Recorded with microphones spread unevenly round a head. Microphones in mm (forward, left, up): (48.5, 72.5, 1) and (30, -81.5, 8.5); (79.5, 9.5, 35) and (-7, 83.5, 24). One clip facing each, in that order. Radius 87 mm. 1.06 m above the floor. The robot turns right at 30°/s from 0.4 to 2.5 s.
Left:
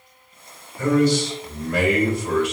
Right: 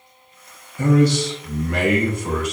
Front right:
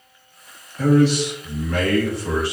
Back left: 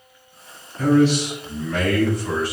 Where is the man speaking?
100° right, 1.1 m; by 2.5 s 50° right, 1.1 m.